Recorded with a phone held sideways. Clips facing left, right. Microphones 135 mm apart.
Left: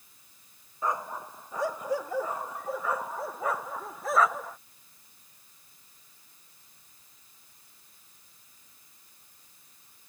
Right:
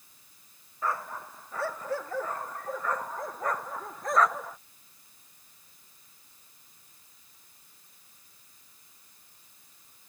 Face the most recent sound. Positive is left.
turn(degrees=0)  # may be behind; listen again after turning